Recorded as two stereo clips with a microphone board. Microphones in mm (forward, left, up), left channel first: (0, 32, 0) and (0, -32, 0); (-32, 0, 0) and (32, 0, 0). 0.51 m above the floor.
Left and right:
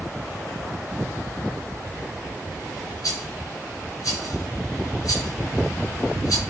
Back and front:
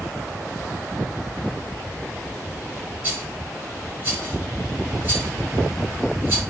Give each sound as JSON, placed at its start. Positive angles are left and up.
{"t": 3.0, "sound": "a rattle", "azimuth_deg": 60, "distance_m": 3.5}